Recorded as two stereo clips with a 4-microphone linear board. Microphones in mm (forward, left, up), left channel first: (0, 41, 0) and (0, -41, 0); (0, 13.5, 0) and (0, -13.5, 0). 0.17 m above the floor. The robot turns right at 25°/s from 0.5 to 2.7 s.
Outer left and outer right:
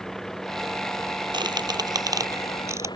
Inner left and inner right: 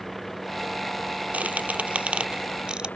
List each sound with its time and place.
0.0 s a vehicle: 5° left; by 3.0 s 60° left
1.3 s a squeak: 65° right (ahead or behind); by 3.0 s 35° right (ahead or behind)